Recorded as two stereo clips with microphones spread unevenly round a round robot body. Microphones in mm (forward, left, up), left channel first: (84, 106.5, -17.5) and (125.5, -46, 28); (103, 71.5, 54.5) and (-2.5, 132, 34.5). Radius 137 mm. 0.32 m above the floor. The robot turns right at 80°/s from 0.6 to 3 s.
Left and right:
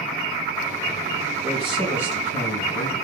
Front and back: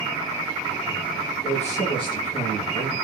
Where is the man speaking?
30° right, 2.5 m; by 3.0 s 95° left, 2.5 m.